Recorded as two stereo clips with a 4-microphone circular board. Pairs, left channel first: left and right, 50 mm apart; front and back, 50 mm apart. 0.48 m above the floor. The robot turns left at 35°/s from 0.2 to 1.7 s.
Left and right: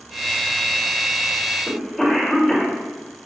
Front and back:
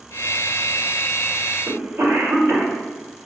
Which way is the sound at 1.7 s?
175° left.